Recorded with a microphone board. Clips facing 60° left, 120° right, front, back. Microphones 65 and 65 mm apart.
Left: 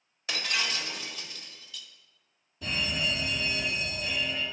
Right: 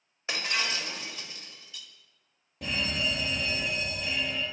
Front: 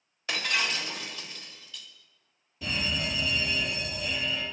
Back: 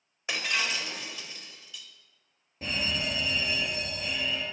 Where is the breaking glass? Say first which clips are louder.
Right 1 dB, front 1 dB; 135° right, 1.3 m.